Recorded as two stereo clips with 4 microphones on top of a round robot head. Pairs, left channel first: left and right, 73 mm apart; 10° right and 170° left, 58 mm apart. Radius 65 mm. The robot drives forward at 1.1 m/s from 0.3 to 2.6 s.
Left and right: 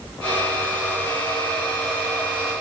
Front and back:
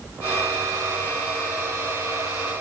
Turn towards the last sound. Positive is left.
No sound to turn to.